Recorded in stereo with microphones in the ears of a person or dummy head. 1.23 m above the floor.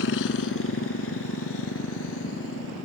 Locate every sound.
0.0 s a motorcycle: 75° left (ahead or behind); by 2.9 s 70° left (ahead or behind)